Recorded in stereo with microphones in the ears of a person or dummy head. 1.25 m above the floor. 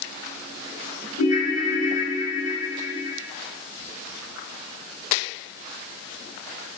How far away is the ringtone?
About 0.9 m.